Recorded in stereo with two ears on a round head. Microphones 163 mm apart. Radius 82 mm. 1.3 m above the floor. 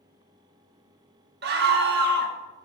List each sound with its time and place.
1.4 s a scream: 55° right (ahead or behind), 1.4 m